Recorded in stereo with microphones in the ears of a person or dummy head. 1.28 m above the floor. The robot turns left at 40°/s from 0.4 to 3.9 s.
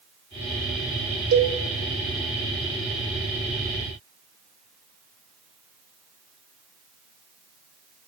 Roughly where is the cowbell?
Right.